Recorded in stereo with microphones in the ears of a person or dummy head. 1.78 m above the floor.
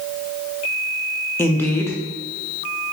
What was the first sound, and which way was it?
A woman speaking, 15° left (ahead or behind).